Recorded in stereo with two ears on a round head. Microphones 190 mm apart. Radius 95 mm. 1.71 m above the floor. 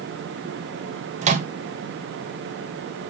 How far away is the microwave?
About 2 m.